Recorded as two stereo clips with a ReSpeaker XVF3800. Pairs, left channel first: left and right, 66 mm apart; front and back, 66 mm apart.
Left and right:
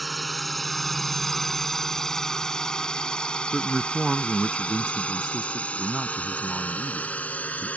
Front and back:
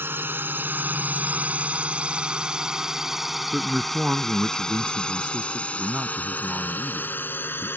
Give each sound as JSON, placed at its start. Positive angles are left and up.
{"t": 0.0, "sound": "a drone", "azimuth_deg": 180}
{"t": 3.5, "sound": "a man speaking", "azimuth_deg": -155}